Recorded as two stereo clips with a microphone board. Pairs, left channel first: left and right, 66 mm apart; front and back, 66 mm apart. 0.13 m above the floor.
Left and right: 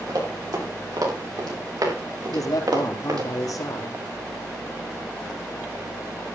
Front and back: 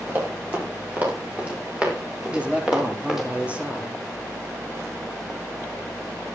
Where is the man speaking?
110° left, 3.5 m.